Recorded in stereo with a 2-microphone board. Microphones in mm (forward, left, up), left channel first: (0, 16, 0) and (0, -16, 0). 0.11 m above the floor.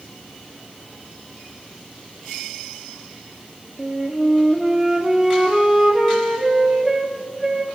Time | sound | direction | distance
3.8 | a flute | 20° right (ahead or behind) | 1.2 m